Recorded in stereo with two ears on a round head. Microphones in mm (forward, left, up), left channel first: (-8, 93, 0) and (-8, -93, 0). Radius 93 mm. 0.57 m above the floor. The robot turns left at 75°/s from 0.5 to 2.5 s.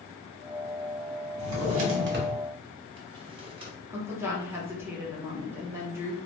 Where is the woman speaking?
10° right (ahead or behind), 0.7 m.